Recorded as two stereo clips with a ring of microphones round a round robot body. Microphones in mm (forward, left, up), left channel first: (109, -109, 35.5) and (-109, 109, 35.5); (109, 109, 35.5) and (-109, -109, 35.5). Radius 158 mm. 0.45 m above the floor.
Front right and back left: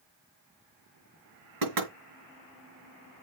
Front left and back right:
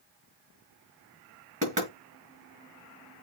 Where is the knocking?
160° left, 6 m.